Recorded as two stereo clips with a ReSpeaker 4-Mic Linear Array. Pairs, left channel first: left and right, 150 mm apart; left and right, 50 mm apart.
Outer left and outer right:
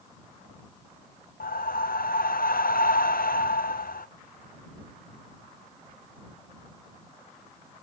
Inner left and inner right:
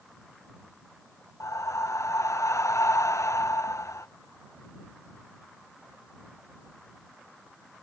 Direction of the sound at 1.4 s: 75° left (ahead or behind).